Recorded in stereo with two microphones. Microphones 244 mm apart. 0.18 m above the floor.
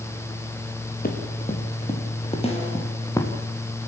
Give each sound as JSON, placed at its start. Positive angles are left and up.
{"t": 1.0, "sound": "running footsteps", "side_deg": 40, "distance_m": 3.5}
{"t": 2.4, "sound": "a snare drum", "side_deg": 25, "distance_m": 5.5}